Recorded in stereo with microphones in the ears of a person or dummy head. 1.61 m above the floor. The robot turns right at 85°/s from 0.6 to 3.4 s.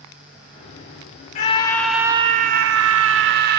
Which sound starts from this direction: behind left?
A scream, at 1.4 s.